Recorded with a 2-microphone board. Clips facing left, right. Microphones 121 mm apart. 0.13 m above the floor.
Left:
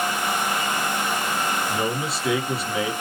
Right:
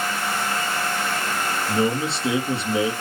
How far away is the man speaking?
About 2 m.